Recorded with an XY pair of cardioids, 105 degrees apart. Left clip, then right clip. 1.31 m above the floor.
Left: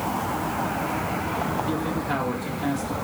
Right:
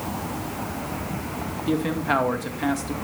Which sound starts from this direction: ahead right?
A man speaking, at 1.7 s.